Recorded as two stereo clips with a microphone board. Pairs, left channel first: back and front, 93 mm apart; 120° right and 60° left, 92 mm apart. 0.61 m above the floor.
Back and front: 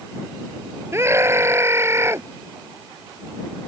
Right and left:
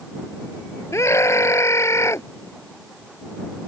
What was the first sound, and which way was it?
A scream, 60° right.